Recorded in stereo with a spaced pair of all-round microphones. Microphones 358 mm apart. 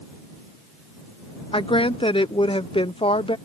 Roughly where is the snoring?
No snoring in this recording.